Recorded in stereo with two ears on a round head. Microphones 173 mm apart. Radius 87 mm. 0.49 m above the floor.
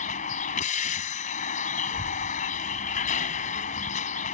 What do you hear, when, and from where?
0.0 s a vehicle: 40° left (ahead or behind)
1.9 s a child speaking: 35° left (ahead or behind)